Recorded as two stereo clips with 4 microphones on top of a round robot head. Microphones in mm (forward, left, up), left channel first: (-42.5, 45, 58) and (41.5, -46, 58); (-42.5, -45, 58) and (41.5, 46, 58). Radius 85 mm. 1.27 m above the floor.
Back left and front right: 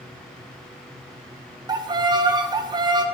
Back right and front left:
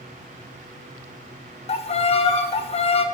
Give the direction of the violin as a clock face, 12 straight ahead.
3 o'clock.